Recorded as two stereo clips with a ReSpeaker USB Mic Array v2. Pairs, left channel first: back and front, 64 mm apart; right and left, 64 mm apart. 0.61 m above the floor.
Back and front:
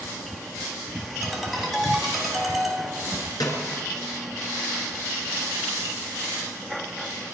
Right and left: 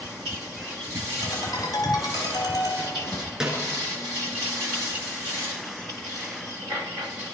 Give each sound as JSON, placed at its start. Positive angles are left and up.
{"t": 1.2, "sound": "a ringtone", "azimuth_deg": -90, "distance_m": 3.0}
{"t": 3.4, "sound": "a snare drum", "azimuth_deg": 170, "distance_m": 4.5}